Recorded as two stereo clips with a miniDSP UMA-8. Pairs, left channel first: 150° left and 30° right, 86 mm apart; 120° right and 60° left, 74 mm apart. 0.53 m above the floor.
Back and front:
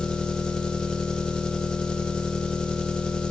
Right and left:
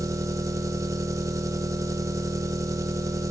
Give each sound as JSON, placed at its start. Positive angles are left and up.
{"t": 0.0, "sound": "an engine running", "azimuth_deg": 75, "distance_m": 0.7}